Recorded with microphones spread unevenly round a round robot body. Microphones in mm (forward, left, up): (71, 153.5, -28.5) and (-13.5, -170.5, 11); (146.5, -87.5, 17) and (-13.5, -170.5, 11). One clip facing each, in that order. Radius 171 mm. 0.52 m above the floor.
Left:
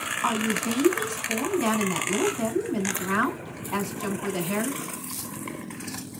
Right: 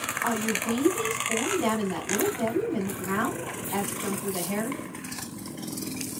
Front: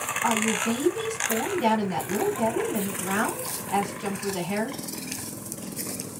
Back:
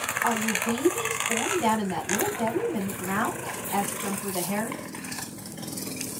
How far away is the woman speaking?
About 2 m.